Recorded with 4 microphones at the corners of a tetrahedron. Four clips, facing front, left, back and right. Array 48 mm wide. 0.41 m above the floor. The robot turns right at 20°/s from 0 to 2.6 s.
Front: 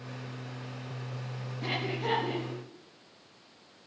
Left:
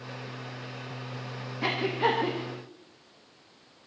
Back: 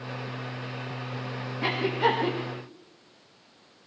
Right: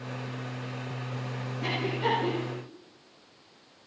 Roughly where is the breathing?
Behind left.